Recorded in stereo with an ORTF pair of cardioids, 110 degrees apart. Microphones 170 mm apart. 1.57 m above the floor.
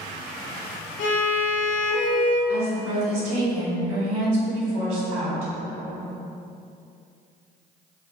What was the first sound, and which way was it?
A violin, 60° left.